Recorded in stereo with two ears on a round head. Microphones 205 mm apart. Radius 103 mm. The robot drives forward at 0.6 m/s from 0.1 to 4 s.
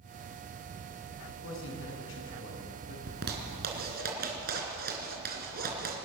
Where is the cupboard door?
I don't hear a cupboard door.